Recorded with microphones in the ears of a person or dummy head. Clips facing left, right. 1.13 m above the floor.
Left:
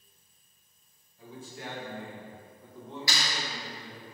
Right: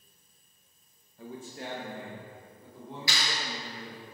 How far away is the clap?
About 0.7 m.